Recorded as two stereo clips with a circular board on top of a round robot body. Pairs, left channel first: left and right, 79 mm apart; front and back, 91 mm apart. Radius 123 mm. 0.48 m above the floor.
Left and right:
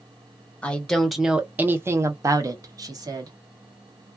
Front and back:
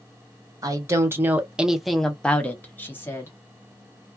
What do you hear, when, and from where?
0.6 s a woman speaking: 160° left, 0.8 m; by 3.3 s 60° right, 1.3 m